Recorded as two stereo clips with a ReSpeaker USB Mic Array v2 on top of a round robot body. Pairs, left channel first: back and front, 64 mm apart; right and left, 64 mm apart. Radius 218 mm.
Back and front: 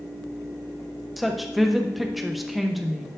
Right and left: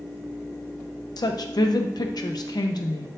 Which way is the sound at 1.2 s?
90° right.